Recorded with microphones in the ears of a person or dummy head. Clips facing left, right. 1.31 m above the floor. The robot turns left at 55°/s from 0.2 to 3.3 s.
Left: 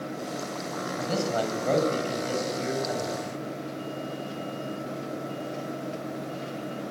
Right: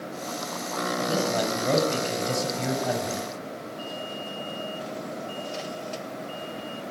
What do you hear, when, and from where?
1.0 s a man speaking: 35° left, 7 m; by 3.3 s 95° right, 7 m